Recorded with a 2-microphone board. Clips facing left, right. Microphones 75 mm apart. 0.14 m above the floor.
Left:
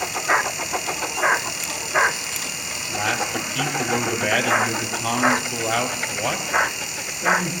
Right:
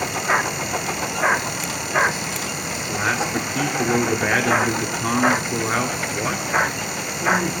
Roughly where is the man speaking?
Right.